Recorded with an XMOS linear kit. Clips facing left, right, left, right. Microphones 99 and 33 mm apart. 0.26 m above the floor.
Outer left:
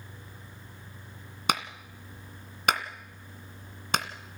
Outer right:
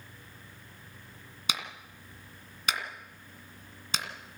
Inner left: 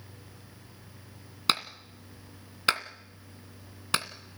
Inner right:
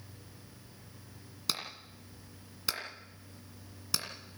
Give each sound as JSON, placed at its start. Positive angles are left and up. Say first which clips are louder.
{"t": 1.5, "sound": "a clap", "louder": "outer left 8 dB, inner left 9 dB", "side_deg": 55, "distance_m": 2.0}